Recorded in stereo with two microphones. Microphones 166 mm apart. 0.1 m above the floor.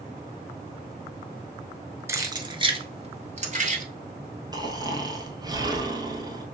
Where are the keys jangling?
15° right (ahead or behind), 0.9 m; by 3.8 s 50° right (ahead or behind), 1.4 m.